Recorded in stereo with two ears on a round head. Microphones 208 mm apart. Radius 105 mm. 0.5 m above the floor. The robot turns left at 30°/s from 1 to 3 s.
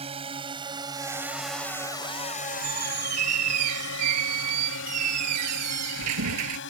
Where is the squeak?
70° right (ahead or behind); by 6.6 s 85° right.